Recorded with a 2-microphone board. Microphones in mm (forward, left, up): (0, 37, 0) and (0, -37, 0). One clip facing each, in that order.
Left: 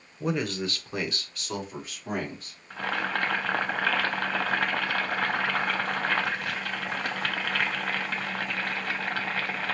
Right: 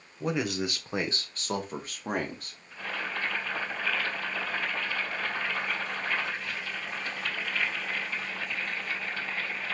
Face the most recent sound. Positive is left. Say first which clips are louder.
# left 6 dB
turn(degrees=70)  # may be behind; listen again after turning